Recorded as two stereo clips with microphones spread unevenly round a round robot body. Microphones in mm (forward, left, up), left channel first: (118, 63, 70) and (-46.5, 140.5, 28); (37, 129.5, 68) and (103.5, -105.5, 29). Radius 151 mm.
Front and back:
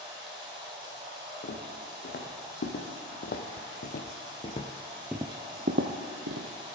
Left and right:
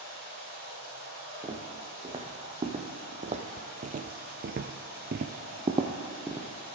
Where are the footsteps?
5° right, 2.5 m; by 6.8 s 165° right, 1.2 m.